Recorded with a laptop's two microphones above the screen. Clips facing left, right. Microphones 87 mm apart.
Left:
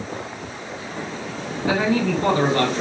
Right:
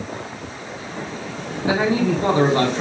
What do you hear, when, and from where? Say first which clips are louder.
1.6 s a man speaking: right 1 dB; 20° right (ahead or behind), 0.7 m